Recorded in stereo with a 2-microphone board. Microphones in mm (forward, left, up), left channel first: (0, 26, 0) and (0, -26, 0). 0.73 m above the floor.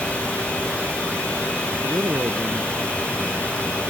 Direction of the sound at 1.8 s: 70° right (ahead or behind).